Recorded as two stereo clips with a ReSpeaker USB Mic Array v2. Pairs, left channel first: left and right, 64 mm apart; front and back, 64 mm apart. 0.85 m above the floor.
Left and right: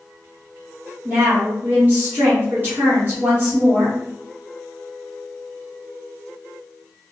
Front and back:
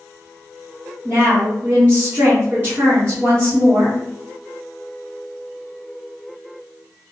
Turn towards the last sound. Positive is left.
turn(degrees=-135)